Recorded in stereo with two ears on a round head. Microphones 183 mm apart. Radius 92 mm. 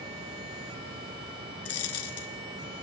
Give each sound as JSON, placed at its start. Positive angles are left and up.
{"t": 1.6, "sound": "a dropped coin", "side_deg": 80, "distance_m": 1.3}